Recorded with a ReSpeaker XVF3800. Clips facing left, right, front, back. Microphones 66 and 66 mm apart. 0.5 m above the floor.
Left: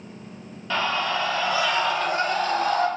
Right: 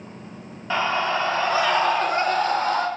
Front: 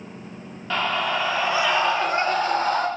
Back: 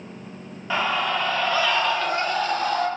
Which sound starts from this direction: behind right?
A scream, at 0.7 s.